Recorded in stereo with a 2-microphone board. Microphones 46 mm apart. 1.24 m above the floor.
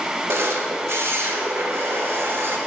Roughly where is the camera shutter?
Right.